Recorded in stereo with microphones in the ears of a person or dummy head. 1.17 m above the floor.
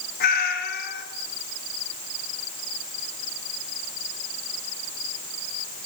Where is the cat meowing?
55° left (ahead or behind), 3 m.